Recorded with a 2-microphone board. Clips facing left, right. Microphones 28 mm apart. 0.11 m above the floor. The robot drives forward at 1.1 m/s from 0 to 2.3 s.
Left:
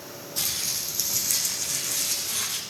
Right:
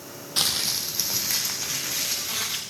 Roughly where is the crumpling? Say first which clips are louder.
Right 5 dB; right.